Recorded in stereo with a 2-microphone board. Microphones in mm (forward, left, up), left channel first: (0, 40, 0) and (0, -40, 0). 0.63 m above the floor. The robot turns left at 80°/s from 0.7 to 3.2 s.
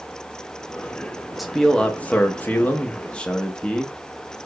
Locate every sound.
1.4 s a man speaking: centre (ahead or behind), 0.5 m; by 4.0 s 15° left (ahead or behind), 0.5 m